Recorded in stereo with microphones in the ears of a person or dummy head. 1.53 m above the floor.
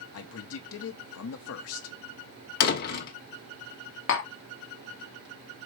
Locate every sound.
0.1 s a man speaking: 70° left (ahead or behind), 0.8 m
2.6 s a door slam: 55° left (ahead or behind), 1.0 m
4.1 s tapping: 60° left (ahead or behind), 0.9 m